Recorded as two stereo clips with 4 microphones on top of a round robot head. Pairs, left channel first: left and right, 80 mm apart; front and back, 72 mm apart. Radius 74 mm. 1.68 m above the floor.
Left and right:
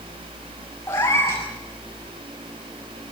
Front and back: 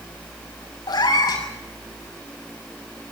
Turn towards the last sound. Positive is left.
turn(degrees=30)